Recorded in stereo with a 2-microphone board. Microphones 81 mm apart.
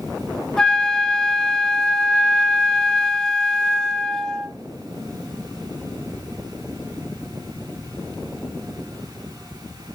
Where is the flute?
10° left (ahead or behind), 0.6 m.